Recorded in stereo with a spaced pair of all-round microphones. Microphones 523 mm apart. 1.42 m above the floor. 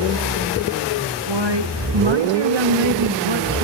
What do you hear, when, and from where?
1.3 s a woman speaking: 55° right (ahead or behind), 1.9 m